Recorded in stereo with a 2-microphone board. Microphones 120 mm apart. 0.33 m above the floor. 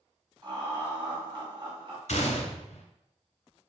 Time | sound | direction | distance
0.4 | laughter | 40° right (ahead or behind) | 1.3 m
2.1 | a gunshot | 80° left | 0.8 m